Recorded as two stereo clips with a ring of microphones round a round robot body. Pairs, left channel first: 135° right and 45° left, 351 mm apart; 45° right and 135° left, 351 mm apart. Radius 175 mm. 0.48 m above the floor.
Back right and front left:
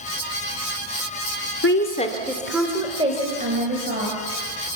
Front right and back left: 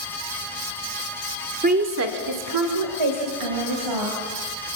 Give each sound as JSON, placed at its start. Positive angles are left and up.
{"t": 1.6, "sound": "a woman speaking", "azimuth_deg": -170, "distance_m": 1.5}